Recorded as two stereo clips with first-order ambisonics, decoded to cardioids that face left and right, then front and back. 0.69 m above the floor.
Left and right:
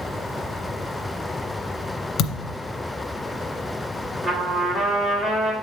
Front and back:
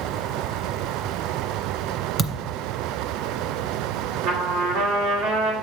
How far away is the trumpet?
About 2 m.